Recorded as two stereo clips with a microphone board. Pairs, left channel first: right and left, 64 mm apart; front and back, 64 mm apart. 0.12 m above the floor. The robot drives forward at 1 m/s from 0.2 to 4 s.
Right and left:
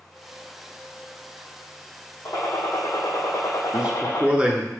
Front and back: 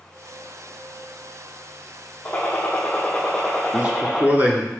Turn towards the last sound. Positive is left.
turn(degrees=145)